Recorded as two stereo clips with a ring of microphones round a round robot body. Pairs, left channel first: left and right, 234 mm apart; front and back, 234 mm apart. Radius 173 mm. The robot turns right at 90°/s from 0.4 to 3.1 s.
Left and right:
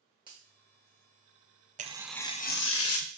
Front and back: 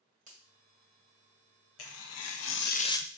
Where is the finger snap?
150° right, 1.4 m.